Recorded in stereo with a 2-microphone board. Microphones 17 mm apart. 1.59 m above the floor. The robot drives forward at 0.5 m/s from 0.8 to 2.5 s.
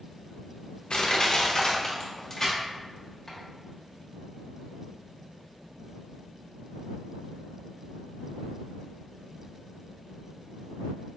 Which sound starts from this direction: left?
Crushing, at 0.9 s.